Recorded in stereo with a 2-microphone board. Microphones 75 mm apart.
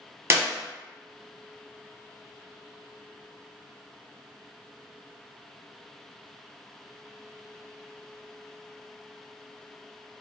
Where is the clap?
35° right (ahead or behind), 1.0 m.